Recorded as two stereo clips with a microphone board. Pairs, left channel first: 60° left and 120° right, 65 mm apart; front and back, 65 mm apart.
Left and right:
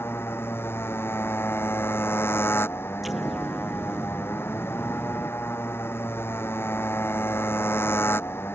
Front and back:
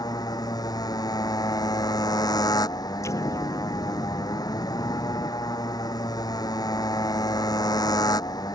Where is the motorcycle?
10° left.